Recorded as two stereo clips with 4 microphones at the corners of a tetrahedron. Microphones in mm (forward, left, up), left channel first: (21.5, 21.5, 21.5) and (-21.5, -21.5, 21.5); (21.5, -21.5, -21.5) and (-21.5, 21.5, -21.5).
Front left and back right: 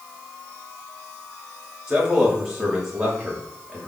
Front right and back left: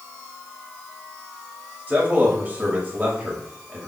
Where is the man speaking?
155° left, 1.1 m.